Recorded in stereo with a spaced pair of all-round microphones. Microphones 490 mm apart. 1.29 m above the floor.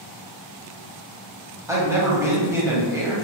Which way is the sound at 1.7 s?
5° right (ahead or behind).